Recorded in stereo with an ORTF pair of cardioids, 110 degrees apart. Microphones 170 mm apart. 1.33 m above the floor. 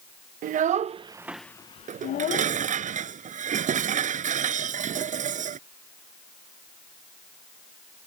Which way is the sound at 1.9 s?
50° right.